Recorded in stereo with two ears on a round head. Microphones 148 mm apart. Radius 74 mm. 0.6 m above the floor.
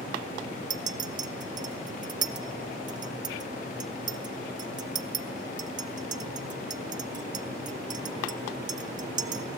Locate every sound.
0.7 s a clink: 25° right (ahead or behind), 0.6 m